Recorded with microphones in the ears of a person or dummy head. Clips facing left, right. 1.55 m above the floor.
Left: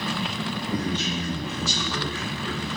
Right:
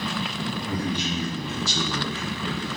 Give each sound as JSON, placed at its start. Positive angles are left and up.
{"t": 0.7, "sound": "a man speaking", "side_deg": -5, "distance_m": 0.9}